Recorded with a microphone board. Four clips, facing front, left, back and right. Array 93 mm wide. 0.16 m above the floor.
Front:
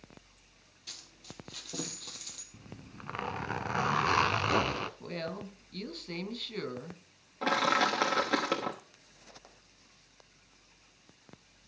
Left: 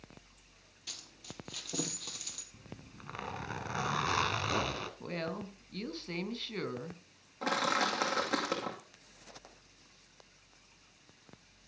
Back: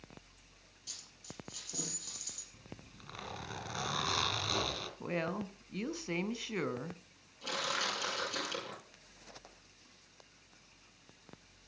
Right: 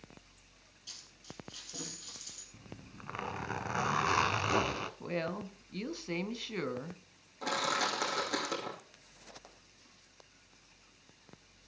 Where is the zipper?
15° right, 1.0 m.